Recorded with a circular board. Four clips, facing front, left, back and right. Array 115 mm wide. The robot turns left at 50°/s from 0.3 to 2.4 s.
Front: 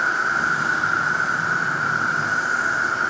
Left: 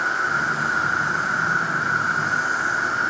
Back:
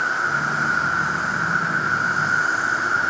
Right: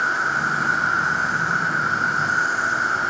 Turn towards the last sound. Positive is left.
turn(degrees=-145)